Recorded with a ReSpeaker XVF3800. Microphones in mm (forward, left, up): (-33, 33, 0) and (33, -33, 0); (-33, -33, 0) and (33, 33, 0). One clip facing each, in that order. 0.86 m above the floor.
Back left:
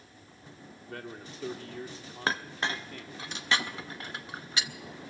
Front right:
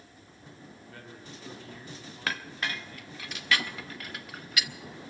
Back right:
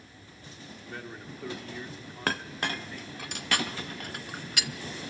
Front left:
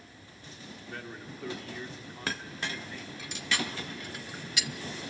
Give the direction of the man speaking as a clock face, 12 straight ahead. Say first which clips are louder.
Back left 7 dB, back right 1 dB; 7 o'clock.